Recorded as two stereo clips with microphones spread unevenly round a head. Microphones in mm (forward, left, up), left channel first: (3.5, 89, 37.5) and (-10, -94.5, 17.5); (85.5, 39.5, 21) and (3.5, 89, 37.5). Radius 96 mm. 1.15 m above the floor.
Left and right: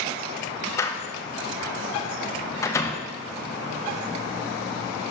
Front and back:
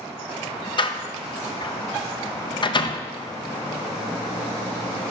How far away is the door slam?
About 0.6 m.